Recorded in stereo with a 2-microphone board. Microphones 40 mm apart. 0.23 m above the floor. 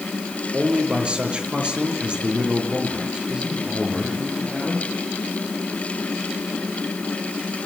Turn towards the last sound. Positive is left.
turn(degrees=-20)  # may be behind; listen again after turning